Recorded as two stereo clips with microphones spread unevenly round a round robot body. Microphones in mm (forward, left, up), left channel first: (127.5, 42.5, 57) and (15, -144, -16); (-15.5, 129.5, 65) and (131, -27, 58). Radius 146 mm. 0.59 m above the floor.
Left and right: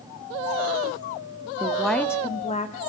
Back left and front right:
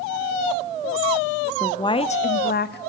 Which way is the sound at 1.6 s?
150° right.